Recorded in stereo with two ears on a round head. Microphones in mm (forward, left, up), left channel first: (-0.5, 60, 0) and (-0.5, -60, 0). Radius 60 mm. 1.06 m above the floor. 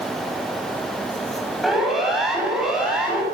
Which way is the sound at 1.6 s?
Centre (ahead or behind).